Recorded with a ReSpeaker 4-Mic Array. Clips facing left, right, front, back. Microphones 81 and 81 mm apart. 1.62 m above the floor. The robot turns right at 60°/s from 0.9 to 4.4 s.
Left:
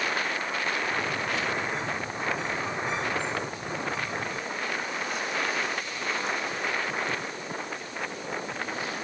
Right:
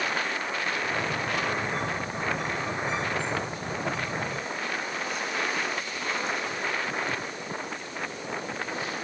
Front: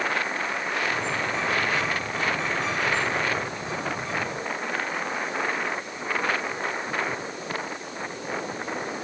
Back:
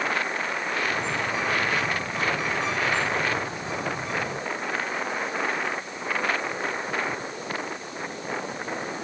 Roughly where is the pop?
No pop in this recording.